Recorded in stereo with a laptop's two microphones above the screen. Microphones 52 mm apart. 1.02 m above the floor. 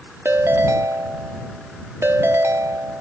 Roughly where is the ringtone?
Right.